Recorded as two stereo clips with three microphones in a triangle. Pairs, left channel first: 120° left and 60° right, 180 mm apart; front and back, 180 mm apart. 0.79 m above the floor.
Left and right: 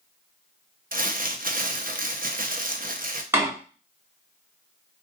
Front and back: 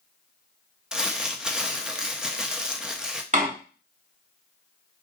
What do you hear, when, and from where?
0.9 s crumpling: 95° right, 0.7 m
3.3 s a door slam: 135° right, 1.3 m